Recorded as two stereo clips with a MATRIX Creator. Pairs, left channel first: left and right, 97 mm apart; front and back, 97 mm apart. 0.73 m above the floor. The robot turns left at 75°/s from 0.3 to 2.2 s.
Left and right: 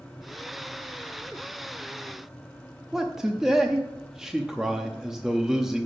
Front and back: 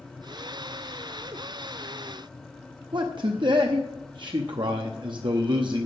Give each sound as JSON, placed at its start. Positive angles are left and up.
{"t": 2.9, "sound": "a man speaking", "azimuth_deg": -175, "distance_m": 0.7}